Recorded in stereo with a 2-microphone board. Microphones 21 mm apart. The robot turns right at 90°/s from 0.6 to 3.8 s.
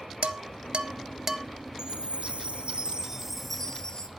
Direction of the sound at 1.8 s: 150° right.